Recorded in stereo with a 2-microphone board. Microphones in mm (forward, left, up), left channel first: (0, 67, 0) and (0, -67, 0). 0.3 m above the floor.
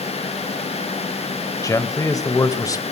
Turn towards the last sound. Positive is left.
turn(degrees=25)  # may be behind; listen again after turning